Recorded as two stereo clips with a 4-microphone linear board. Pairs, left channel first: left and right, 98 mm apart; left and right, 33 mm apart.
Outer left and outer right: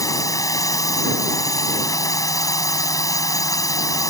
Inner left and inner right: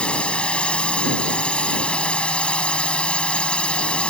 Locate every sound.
0.0 s a drone: 35° left (ahead or behind)